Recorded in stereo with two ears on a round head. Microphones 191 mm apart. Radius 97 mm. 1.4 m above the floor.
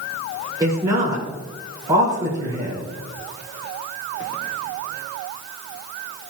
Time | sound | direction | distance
0.6 | a woman speaking | 15° right (ahead or behind) | 5.5 m